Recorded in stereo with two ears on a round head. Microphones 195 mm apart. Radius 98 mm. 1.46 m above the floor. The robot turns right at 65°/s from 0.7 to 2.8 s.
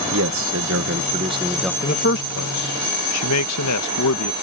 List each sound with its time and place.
0.1 s a man speaking: 65° right; by 1.7 s 5° left
1.8 s a man speaking: 30° left (ahead or behind); by 4.3 s 85° left